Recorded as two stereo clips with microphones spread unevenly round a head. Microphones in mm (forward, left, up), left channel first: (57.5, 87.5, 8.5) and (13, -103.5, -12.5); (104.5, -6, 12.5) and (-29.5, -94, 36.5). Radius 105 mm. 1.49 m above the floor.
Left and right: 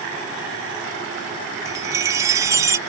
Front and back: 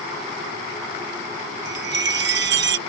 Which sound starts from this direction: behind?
A chime, at 1.6 s.